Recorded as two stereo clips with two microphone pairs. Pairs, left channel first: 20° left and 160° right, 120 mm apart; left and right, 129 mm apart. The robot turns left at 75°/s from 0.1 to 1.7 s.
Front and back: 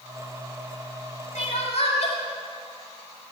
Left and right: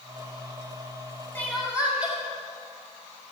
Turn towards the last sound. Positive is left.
turn(degrees=-5)